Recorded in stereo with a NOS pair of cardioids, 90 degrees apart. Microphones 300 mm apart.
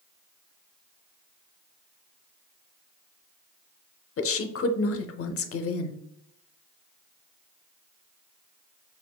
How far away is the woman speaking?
About 0.7 m.